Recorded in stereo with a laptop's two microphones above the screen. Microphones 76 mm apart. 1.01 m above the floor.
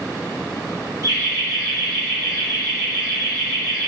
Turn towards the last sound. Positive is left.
turn(degrees=-45)  # may be behind; listen again after turning